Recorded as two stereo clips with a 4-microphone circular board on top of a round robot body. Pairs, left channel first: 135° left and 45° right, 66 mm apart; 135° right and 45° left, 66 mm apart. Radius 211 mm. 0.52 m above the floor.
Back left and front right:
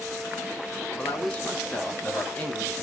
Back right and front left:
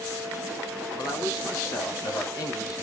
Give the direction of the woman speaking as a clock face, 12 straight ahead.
5 o'clock.